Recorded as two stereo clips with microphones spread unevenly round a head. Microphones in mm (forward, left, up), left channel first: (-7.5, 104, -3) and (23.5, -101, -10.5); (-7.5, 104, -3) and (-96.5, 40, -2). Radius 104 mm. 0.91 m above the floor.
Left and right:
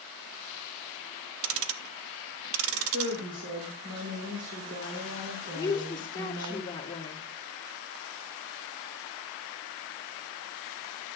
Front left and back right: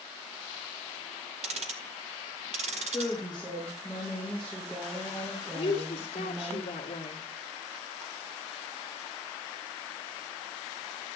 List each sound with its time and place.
1.4 s ticking: 105° right, 0.6 m
2.8 s a woman speaking: 50° right, 3.5 m
5.5 s a woman speaking: 30° left, 1.4 m